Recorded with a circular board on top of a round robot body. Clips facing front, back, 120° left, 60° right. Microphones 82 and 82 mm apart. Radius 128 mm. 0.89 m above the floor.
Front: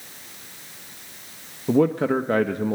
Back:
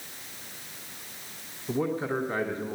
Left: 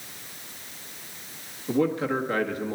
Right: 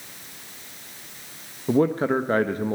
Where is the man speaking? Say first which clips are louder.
Front 9 dB, right 4 dB; 10° right, 0.9 m.